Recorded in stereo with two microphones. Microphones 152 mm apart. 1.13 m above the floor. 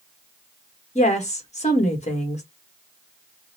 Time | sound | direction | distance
0.9 | a woman speaking | 50° left (ahead or behind) | 1.2 m